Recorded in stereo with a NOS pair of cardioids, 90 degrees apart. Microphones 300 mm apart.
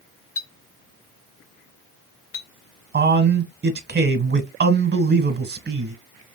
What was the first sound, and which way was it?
A clink, 50° left.